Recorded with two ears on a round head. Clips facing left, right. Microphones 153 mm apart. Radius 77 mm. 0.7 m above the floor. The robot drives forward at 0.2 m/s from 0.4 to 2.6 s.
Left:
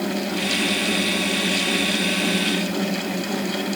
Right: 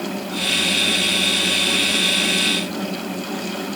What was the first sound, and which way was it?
Only background noise.